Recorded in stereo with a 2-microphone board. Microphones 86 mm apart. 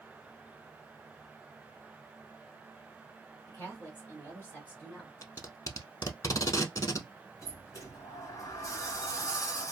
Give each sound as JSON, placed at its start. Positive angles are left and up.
{"t": 3.5, "sound": "a woman speaking", "side_deg": 25, "distance_m": 1.8}
{"t": 5.2, "sound": "tape being pulled", "side_deg": 45, "distance_m": 0.6}
{"t": 7.4, "sound": "a sliding door", "side_deg": 40, "distance_m": 1.6}